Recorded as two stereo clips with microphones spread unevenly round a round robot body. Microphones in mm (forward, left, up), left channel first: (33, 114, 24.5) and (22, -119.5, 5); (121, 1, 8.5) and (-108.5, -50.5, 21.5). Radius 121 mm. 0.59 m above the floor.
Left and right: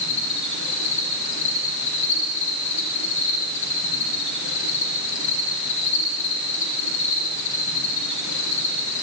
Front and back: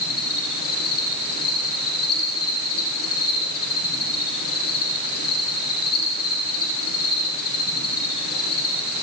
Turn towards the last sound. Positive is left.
turn(degrees=50)